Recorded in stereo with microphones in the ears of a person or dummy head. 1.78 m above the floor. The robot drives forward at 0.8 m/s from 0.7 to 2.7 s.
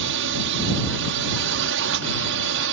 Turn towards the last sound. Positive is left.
turn(degrees=-65)  # may be behind; listen again after turning